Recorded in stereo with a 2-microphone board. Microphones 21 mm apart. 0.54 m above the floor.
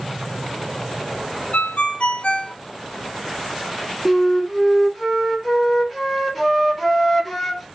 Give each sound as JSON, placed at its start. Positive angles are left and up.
{"t": 1.5, "sound": "a ringtone", "side_deg": 80, "distance_m": 0.6}
{"t": 4.0, "sound": "a flute", "side_deg": 0, "distance_m": 1.3}